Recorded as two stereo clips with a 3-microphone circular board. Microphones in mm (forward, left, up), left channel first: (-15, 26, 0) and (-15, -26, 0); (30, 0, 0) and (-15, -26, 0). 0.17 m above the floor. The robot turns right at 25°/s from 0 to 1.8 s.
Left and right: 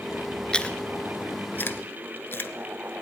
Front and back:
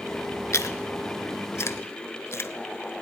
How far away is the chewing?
About 0.6 m.